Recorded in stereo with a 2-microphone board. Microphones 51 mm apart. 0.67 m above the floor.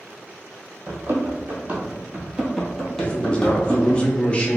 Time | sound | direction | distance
0.9 | running footsteps | 50° right (ahead or behind) | 1.1 m
3.0 | a man speaking | 20° left (ahead or behind) | 0.5 m